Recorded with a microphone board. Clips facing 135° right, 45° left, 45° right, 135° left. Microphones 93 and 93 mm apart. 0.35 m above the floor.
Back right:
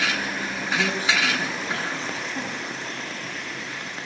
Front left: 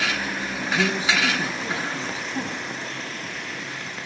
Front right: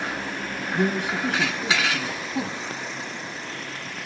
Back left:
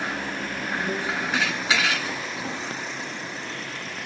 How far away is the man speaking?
About 10 m.